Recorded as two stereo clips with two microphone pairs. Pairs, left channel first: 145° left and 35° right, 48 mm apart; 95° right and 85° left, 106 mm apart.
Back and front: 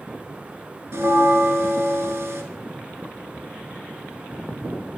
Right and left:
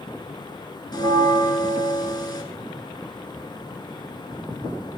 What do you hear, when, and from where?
0.9 s a bell: 50° right, 0.7 m